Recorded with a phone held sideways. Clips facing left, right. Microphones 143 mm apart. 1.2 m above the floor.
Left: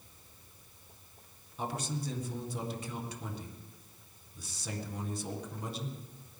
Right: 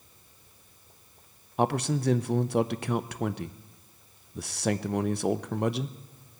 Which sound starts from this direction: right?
A man speaking, at 1.6 s.